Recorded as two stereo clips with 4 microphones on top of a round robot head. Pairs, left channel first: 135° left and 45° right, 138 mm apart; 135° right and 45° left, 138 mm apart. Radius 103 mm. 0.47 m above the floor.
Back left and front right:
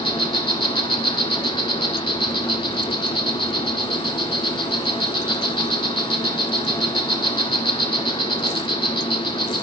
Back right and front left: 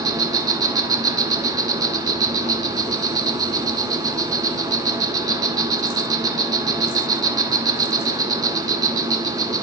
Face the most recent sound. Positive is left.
turn(degrees=90)